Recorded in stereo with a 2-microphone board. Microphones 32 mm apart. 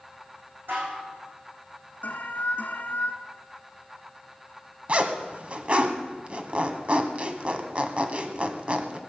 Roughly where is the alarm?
Left.